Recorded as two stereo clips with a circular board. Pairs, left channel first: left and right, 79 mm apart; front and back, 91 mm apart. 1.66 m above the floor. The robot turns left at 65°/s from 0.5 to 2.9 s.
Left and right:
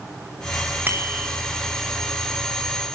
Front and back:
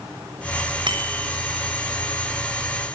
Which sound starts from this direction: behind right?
A bicycle bell, at 0.9 s.